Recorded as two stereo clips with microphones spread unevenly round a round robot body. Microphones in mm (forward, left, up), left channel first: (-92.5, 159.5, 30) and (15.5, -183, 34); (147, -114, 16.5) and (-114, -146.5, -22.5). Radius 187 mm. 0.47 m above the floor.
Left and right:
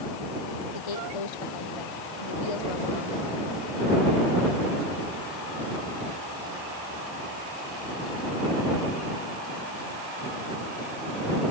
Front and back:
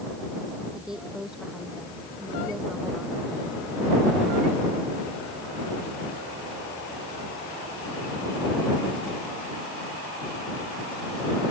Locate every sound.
0.7 s a woman speaking: 100° left